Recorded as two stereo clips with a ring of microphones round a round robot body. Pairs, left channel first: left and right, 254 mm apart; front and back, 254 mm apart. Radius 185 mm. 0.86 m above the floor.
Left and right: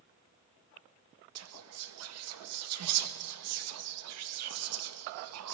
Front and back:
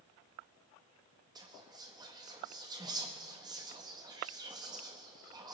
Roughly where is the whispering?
Right.